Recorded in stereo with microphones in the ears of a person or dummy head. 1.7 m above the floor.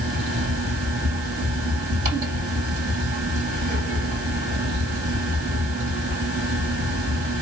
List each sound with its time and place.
0.0 s a fan: 45° right (ahead or behind), 2.5 m